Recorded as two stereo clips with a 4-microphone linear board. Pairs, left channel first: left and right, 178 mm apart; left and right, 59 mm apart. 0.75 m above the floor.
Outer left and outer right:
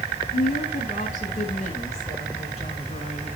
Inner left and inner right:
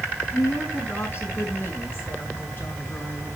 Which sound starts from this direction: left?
A woman speaking, at 0.3 s.